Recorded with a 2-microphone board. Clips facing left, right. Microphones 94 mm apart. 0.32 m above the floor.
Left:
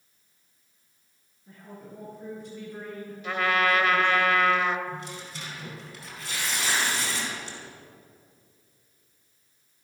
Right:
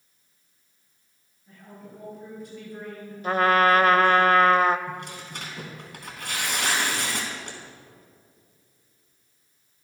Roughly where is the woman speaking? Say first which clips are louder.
Left 1 dB; left.